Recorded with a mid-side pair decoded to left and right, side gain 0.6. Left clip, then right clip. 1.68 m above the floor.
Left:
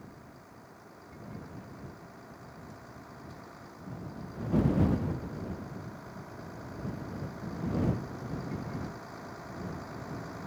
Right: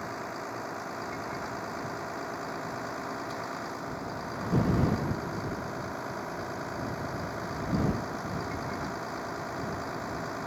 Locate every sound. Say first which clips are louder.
0.0 s a vehicle: right 16 dB; 65° right; by 10.5 s 40° right